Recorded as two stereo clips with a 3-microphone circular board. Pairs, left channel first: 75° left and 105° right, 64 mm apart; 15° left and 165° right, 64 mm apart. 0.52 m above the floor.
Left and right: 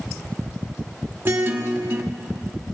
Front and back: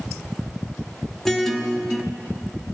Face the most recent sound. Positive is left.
turn(degrees=-65)